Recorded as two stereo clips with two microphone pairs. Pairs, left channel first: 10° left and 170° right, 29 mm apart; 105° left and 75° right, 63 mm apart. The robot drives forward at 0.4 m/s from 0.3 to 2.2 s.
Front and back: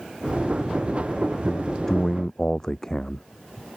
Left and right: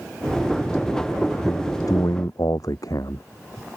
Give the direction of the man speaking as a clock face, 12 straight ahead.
9 o'clock.